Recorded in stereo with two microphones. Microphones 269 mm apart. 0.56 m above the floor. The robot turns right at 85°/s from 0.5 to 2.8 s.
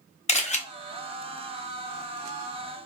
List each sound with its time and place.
0.3 s a camera shutter: 25° left (ahead or behind), 0.5 m